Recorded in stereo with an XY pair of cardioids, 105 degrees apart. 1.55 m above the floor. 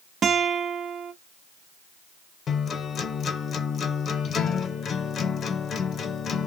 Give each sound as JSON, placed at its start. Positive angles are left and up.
{"t": 0.2, "sound": "a guitar", "azimuth_deg": -50, "distance_m": 0.6}
{"t": 2.5, "sound": "a guitar", "azimuth_deg": 55, "distance_m": 0.9}